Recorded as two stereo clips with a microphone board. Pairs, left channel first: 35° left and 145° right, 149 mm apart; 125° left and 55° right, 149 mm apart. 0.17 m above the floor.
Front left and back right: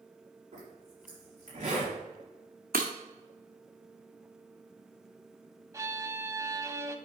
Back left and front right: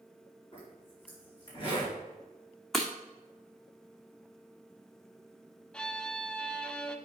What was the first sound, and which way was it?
A zipper, 175° left.